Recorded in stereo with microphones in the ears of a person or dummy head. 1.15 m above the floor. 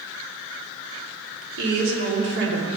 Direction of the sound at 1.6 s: 70° right (ahead or behind).